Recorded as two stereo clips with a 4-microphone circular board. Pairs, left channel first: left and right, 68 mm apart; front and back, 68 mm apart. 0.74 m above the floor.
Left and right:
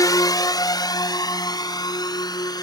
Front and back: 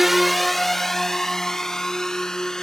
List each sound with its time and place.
0.0 s a drone: 95° left; by 2.6 s 80° left